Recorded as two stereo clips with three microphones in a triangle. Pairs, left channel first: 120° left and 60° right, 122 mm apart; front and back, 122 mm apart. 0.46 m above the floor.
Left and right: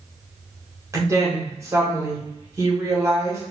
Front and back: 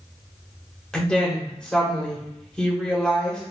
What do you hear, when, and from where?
0.9 s a woman speaking: 75° right, 1.4 m